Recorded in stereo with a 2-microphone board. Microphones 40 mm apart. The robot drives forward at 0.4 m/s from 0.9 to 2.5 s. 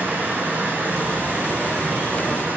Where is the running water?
50° right (ahead or behind), 10 m; by 2.6 s 45° right (ahead or behind), 10.5 m.